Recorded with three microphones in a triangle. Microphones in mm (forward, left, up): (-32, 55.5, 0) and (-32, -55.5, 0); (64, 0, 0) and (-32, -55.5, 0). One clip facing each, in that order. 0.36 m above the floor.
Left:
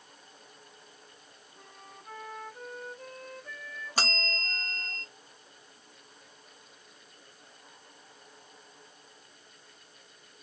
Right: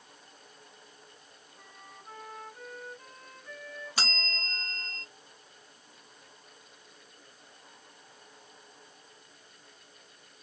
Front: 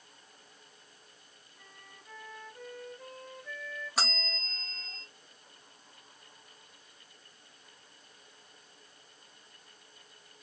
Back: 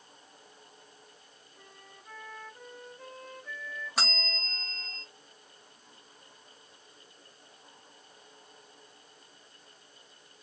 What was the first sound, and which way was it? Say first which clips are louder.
A flute: left 1 dB, back 2 dB; 125° left.